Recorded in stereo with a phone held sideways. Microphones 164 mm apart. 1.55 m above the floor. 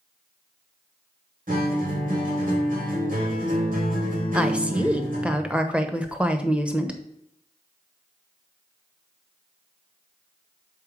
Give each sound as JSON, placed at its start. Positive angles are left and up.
{"t": 1.5, "sound": "a guitar", "side_deg": -55, "distance_m": 2.5}
{"t": 4.3, "sound": "a woman speaking", "side_deg": -5, "distance_m": 1.0}